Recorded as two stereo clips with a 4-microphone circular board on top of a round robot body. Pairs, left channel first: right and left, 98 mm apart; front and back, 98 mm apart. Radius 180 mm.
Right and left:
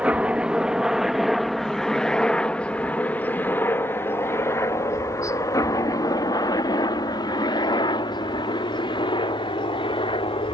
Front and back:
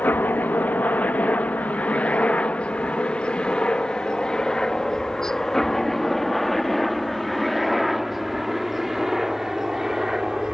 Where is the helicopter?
35° left; by 10.5 s 95° right.